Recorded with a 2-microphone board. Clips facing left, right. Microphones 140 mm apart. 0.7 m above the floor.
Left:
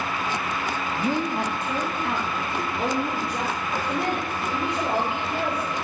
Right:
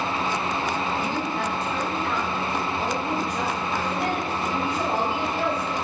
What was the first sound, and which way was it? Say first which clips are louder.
A woman speaking: left 2 dB; 35° left (ahead or behind).